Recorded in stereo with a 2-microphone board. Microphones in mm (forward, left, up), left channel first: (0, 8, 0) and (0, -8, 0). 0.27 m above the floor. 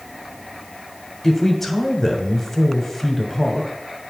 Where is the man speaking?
15° left (ahead or behind), 1.2 m.